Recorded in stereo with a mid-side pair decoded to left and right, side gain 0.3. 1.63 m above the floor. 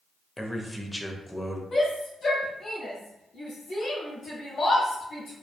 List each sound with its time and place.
0.4 s a man speaking: 10° left, 0.6 m
1.7 s a shout: 65° left, 0.6 m